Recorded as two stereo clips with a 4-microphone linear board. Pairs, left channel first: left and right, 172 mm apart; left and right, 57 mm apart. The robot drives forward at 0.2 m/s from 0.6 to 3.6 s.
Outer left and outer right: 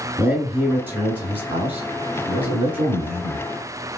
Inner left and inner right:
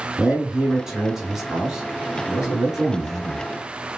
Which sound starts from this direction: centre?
A man speaking, at 0.2 s.